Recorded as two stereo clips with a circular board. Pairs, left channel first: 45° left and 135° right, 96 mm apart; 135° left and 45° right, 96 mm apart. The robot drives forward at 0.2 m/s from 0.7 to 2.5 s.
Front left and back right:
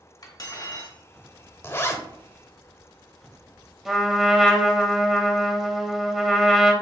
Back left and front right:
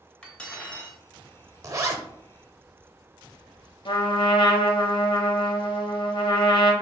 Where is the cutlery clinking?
65° left, 0.9 m; by 1.0 s 70° left, 0.9 m.